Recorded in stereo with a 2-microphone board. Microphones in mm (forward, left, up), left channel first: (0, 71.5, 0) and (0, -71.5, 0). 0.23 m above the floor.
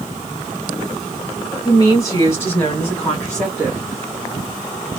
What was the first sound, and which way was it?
A woman speaking, 25° left (ahead or behind).